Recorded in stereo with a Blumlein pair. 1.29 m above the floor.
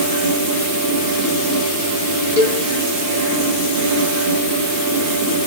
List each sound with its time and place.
0.0 s a fan: 50° right, 1.5 m
2.4 s a cowbell: 55° left, 2.0 m